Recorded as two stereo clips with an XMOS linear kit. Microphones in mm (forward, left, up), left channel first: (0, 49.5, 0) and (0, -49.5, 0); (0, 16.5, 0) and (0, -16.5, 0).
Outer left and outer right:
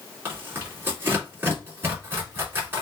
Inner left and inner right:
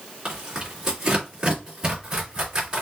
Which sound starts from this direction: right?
Tearing paper, at 0.2 s.